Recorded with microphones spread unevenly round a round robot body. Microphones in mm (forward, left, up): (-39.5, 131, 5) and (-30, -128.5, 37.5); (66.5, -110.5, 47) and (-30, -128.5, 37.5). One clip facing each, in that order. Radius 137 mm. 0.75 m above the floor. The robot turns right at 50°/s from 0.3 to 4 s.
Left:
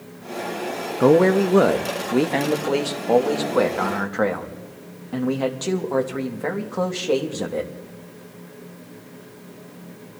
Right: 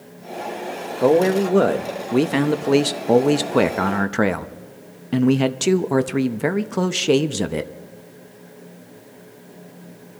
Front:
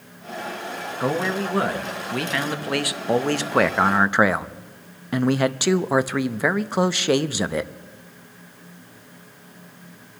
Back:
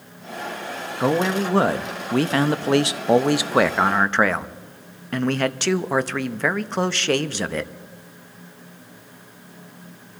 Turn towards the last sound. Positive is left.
turn(degrees=-75)